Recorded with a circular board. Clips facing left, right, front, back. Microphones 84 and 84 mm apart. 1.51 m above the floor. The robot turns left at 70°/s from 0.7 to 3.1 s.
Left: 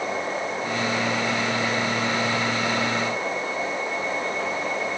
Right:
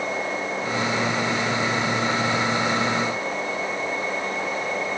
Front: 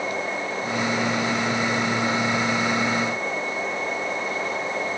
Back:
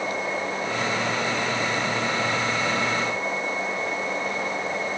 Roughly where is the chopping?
No chopping in this recording.